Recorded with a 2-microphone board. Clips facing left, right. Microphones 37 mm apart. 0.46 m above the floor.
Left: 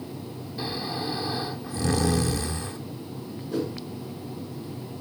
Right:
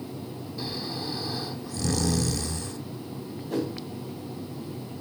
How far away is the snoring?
About 0.6 m.